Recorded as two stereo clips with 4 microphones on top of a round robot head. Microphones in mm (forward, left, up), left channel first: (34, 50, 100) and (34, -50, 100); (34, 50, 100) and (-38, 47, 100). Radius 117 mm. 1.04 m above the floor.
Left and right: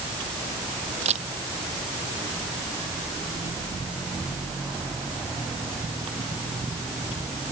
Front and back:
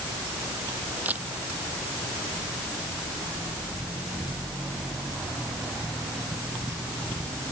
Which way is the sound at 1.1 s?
105° right.